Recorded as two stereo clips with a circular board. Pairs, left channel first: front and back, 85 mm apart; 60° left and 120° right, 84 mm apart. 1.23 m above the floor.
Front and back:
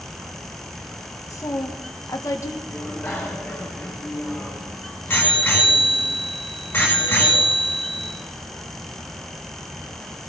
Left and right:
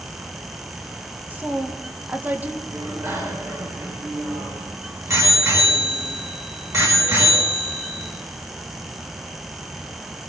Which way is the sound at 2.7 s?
70° right.